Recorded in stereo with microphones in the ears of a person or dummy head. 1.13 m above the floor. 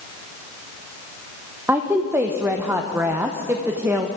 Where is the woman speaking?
10° right (ahead or behind), 0.5 m.